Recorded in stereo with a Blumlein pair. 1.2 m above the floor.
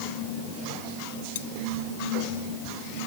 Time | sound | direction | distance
1.4 | cutlery clinking | 55° left | ?